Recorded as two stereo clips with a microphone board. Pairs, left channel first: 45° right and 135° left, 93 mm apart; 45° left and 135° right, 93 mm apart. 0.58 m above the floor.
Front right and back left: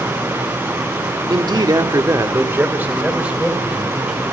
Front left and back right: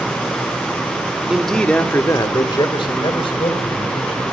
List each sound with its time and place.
1.3 s a man speaking: 140° left, 1.5 m; by 4.2 s 50° left, 4 m